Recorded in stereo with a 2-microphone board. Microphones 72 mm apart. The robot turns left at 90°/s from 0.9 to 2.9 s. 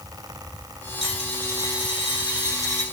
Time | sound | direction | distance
1.0 | a dropped coin | 175° right | 3.5 m